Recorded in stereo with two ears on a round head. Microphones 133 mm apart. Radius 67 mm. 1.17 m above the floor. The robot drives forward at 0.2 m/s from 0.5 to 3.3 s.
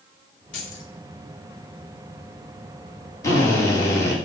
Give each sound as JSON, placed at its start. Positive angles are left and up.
{"t": 0.5, "sound": "keys jangling", "side_deg": 55, "distance_m": 2.5}
{"t": 3.2, "sound": "a drill", "side_deg": 25, "distance_m": 2.5}